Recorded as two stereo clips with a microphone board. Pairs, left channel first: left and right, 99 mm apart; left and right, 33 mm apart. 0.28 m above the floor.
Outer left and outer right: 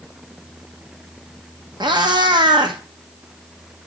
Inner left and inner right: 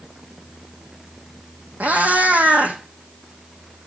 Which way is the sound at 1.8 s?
50° right (ahead or behind).